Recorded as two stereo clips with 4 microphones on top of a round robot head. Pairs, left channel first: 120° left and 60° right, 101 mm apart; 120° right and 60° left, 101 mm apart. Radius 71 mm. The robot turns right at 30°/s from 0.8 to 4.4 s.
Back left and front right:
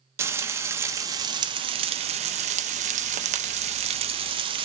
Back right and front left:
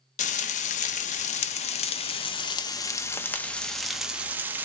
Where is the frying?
125° right, 0.5 m; by 4.7 s 15° right, 0.5 m.